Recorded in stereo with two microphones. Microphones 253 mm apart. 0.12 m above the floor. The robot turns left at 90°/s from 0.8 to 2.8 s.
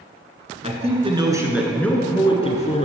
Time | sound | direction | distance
0.6 | a man speaking | 25° right (ahead or behind) | 1.3 m